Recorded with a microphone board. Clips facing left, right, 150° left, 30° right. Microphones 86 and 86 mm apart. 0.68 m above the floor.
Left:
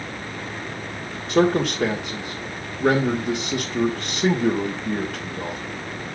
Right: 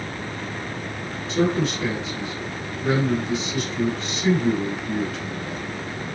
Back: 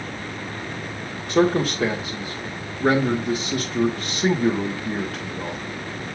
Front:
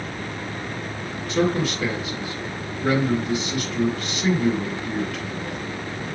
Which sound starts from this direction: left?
A man speaking, at 1.3 s.